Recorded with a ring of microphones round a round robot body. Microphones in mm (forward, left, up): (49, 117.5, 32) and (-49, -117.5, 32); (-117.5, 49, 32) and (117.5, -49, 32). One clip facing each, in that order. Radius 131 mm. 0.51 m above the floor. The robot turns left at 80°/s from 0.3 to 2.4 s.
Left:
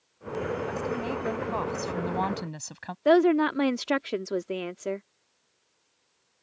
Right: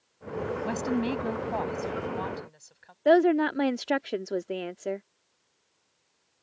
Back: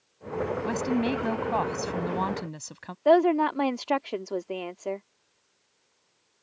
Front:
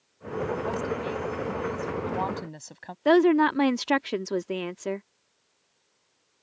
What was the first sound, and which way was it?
A woman speaking, 140° right.